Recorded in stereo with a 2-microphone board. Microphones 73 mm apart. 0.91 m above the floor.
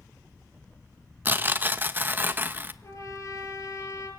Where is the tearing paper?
25° right (ahead or behind), 1.0 m.